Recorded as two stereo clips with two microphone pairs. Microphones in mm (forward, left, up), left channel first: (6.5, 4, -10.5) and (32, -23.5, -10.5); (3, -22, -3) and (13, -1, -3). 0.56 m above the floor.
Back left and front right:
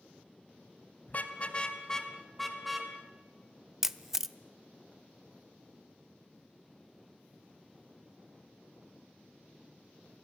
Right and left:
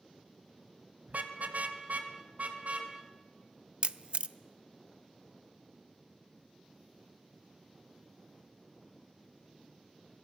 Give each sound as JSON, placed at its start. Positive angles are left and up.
{"t": 1.1, "sound": "a car horn", "azimuth_deg": 90, "distance_m": 2.0}
{"t": 3.8, "sound": "a camera shutter", "azimuth_deg": 30, "distance_m": 0.7}